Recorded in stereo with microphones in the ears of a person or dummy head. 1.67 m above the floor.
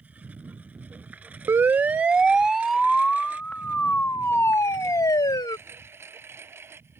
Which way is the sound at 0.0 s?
10° right (ahead or behind).